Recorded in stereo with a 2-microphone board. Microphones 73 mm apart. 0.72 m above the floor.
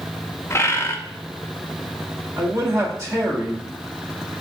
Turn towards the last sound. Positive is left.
turn(degrees=-40)  # may be behind; listen again after turning